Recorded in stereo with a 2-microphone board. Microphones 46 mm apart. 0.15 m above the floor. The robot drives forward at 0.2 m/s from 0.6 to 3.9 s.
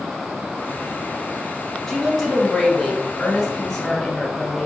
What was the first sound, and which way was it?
A woman speaking, 10° left (ahead or behind).